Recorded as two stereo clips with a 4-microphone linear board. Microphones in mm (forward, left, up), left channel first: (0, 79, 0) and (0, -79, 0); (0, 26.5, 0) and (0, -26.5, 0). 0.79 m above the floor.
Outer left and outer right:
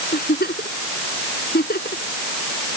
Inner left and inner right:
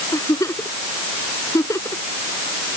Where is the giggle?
85° left.